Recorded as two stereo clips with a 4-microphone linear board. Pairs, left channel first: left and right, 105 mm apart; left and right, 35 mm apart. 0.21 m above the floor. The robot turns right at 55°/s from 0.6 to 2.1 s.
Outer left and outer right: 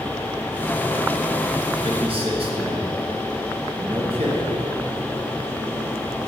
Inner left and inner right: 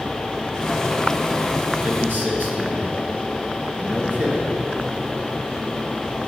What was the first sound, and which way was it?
A man speaking, 65° right (ahead or behind).